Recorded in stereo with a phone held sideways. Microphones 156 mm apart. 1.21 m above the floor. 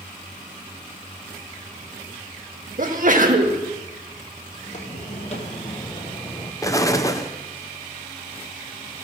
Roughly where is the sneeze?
Right.